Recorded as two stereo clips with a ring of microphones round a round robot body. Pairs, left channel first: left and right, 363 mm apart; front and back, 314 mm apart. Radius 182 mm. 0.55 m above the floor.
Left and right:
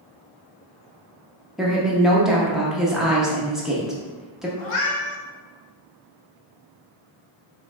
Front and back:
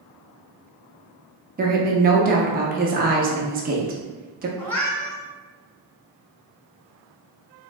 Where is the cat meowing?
85° left, 1.3 m.